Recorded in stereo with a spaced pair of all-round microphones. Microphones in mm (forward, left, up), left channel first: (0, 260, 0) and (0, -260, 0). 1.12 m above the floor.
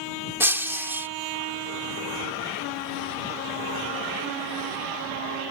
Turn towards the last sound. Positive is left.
turn(degrees=-5)  # may be behind; listen again after turning